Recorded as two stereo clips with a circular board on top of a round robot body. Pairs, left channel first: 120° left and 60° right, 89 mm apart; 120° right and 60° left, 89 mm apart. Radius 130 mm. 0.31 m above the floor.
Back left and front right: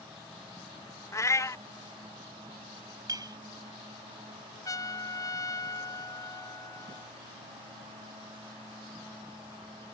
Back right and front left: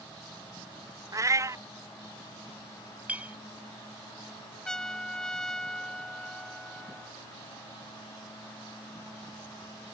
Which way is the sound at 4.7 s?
160° left.